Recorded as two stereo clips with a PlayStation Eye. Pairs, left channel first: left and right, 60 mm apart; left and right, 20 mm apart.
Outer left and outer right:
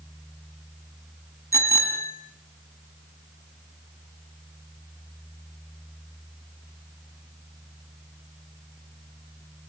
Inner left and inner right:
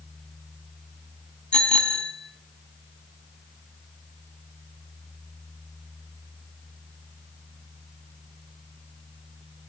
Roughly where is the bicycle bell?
Left.